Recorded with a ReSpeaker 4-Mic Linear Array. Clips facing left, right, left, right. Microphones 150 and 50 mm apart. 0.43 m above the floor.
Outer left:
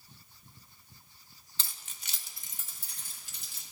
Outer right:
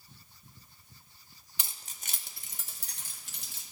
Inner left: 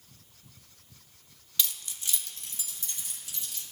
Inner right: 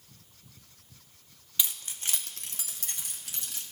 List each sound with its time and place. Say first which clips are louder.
1.6 s keys jangling: outer right 1 dB, even; 15° right (ahead or behind), 0.5 m; by 3.6 s 75° right (ahead or behind), 1.6 m